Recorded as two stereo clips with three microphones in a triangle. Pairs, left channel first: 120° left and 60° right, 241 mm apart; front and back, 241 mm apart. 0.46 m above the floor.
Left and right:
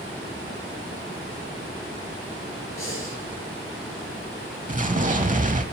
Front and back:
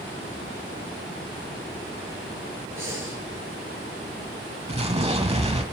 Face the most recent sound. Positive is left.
turn(degrees=-120)